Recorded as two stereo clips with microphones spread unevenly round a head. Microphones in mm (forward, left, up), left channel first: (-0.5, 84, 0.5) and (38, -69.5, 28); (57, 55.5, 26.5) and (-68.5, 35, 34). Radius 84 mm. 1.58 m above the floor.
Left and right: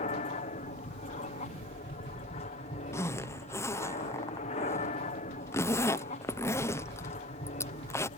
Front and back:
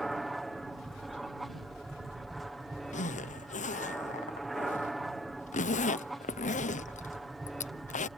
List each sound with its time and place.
0.0 s an aircraft: 95° left
2.9 s a zipper: 30° left